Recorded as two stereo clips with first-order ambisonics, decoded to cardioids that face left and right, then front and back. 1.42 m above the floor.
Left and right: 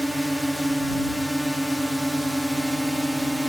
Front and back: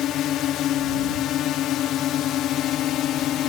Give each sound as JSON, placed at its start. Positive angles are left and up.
{"t": 0.0, "sound": "a drone", "azimuth_deg": 5}